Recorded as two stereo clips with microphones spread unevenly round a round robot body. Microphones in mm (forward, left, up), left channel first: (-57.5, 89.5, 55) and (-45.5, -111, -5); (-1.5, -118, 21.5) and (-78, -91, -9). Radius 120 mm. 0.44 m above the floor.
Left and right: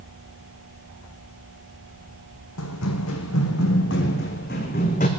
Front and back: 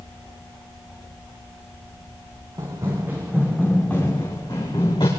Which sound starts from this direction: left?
Running footsteps, at 2.6 s.